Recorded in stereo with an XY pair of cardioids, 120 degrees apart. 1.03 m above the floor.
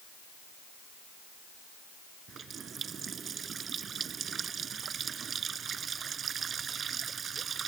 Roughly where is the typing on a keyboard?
I don't hear typing on a keyboard.